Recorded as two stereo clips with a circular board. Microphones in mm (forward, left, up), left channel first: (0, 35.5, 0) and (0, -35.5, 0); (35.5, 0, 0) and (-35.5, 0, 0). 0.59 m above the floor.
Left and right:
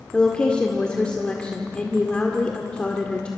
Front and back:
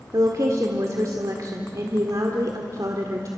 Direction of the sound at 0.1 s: 165° left.